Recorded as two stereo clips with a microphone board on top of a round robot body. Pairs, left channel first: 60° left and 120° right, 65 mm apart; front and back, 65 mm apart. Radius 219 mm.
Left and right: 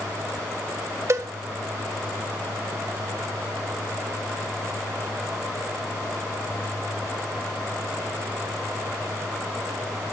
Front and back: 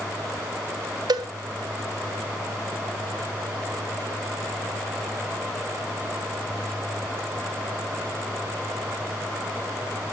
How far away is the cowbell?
About 0.8 m.